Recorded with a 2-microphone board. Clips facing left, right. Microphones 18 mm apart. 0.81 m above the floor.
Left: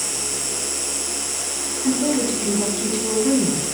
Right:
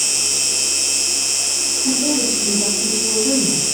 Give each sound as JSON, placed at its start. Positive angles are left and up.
{"t": 0.0, "sound": "an insect", "side_deg": -80, "distance_m": 1.3}
{"t": 1.8, "sound": "a woman speaking", "side_deg": 75, "distance_m": 8.0}